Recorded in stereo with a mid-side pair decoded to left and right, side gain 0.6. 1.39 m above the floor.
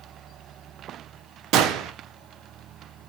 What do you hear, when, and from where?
1.5 s a gunshot: 65° right, 0.6 m